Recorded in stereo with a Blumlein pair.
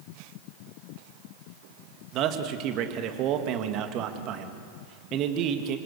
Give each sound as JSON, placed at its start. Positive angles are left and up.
{"t": 2.1, "sound": "a man speaking", "azimuth_deg": -35, "distance_m": 2.0}